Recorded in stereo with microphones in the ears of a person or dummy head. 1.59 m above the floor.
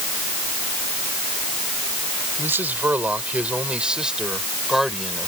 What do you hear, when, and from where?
2.4 s a man speaking: 10° right (ahead or behind); by 5.3 s centre (ahead or behind)